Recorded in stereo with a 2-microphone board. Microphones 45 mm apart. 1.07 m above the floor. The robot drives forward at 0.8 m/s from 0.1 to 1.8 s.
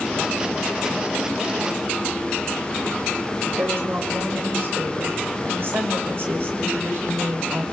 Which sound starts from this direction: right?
A woman speaking, at 3.6 s.